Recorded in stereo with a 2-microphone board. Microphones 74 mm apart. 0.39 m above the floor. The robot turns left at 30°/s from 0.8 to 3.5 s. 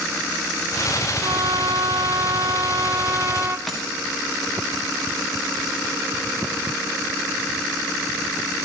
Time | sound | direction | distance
1.2 | a trumpet | 80° right | 1.1 m
3.7 | a dropped coin | centre (ahead or behind) | 6.5 m